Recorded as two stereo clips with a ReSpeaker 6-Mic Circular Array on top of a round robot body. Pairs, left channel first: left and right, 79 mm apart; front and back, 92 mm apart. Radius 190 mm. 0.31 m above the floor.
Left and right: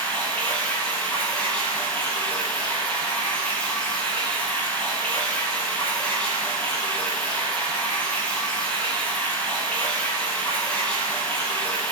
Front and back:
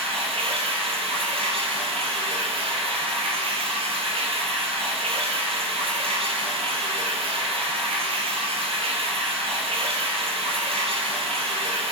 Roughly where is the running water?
Behind.